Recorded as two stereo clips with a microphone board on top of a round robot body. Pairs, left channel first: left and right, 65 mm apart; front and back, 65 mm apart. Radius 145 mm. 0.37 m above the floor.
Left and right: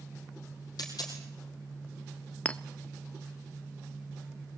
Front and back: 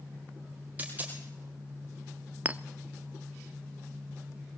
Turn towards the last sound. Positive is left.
turn(degrees=140)